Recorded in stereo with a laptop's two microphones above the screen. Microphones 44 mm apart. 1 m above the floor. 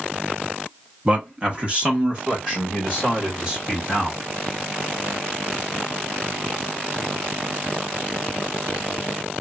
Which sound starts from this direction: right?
A man speaking, at 1.1 s.